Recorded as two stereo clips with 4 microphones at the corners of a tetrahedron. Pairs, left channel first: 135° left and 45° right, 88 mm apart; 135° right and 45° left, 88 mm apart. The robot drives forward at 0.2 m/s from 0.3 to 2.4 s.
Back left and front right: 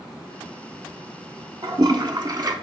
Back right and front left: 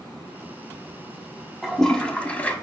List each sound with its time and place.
1.6 s a toilet flushing: 50° right, 0.5 m; by 2.5 s 65° right, 0.5 m